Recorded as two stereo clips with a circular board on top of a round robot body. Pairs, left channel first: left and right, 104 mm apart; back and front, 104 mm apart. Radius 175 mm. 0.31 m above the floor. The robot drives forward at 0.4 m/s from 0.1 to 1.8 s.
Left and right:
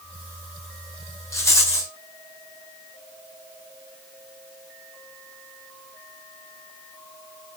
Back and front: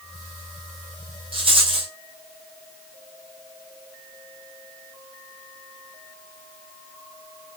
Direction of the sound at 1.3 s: 25° left.